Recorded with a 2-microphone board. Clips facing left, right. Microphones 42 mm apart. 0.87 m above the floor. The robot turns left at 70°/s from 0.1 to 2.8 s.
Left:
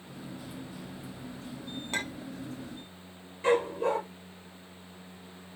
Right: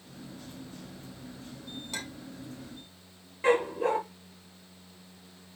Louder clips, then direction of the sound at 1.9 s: Left 7 dB; 40° left (ahead or behind).